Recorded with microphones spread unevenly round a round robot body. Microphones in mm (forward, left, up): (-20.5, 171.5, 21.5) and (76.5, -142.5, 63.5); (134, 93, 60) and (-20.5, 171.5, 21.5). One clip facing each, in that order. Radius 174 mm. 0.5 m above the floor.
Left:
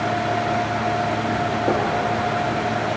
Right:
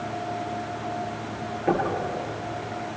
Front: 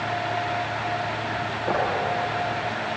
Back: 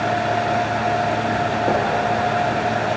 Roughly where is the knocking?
Behind right.